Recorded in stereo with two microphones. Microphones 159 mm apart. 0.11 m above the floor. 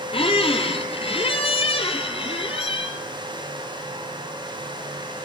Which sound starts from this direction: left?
A squeak, at 0.1 s.